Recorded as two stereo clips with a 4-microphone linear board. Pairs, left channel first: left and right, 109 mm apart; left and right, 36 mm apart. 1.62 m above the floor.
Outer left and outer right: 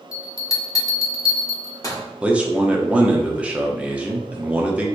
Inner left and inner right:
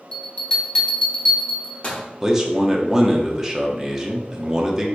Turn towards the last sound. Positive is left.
turn(degrees=-10)  # may be behind; listen again after turning